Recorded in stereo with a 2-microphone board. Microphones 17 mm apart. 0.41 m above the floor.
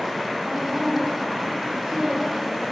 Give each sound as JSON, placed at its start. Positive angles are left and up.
{"t": 0.5, "sound": "a woman speaking", "side_deg": -65, "distance_m": 4.5}